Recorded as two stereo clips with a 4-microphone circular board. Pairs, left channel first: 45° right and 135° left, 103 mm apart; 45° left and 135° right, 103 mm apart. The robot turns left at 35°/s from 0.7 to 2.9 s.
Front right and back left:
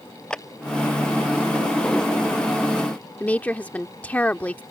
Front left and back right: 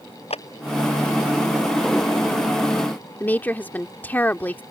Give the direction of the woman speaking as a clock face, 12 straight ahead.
12 o'clock.